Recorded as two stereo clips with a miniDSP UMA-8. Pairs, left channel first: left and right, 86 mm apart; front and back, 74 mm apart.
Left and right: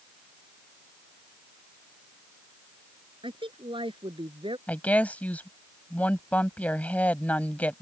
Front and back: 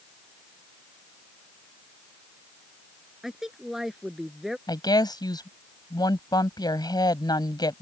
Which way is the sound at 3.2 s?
95° right.